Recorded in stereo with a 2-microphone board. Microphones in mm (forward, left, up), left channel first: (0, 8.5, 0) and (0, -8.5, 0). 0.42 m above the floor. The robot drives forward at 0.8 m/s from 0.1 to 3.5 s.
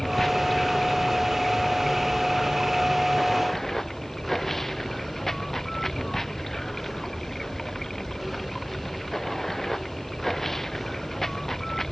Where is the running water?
15° left (ahead or behind).